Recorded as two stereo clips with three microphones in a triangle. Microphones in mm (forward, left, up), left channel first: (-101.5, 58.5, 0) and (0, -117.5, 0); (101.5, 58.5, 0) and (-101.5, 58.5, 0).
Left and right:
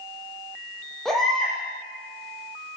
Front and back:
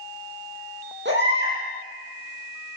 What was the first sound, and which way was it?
A baby crying, 150° right.